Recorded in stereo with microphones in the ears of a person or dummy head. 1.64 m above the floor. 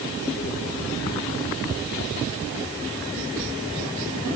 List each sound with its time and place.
Only background noise.